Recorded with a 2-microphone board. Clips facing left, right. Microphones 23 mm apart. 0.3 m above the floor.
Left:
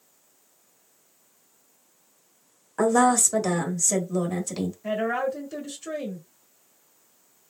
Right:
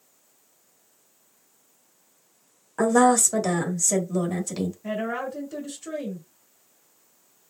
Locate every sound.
2.8 s a woman speaking: centre (ahead or behind), 1.2 m
4.8 s a woman speaking: 15° left (ahead or behind), 1.4 m